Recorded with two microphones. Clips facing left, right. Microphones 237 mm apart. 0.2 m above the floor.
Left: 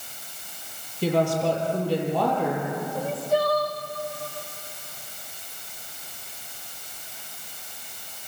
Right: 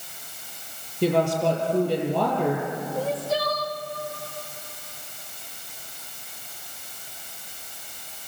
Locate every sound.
1.0 s a woman speaking: 60° right (ahead or behind), 6.5 m
3.0 s crying: 85° right, 2.0 m